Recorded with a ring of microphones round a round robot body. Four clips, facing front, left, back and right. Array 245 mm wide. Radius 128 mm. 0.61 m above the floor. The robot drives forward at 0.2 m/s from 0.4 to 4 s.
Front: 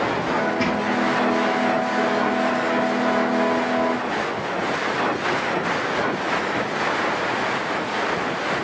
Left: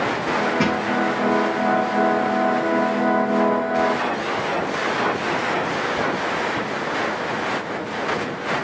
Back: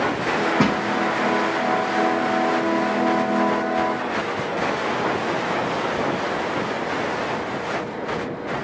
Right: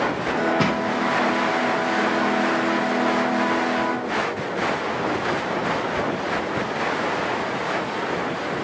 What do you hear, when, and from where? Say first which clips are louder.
0.6 s crushing: left 1 dB, back 2 dB; 165° right, 4 m